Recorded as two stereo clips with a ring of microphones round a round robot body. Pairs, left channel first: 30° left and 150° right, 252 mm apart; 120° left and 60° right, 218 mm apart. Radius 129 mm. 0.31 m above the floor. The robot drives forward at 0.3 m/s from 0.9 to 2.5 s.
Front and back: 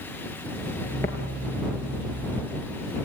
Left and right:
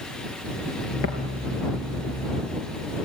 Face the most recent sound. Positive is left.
turn(degrees=115)